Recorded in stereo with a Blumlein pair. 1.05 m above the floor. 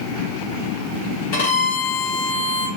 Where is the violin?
50° left, 1.3 m.